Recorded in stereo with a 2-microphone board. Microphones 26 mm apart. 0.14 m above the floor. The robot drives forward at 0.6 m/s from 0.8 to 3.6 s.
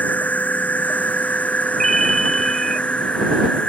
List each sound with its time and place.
0.0 s an insect: 85° left; by 3.7 s 50° left (ahead or behind)
1.8 s a ringtone: 15° left (ahead or behind); by 2.8 s 10° left (ahead or behind)